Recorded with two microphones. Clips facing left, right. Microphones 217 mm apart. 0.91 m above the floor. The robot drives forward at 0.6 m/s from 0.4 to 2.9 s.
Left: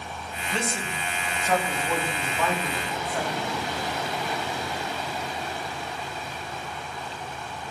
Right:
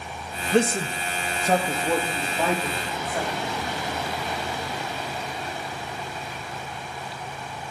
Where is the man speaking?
60° right (ahead or behind), 0.5 m; by 3.5 s 15° right (ahead or behind), 1.5 m.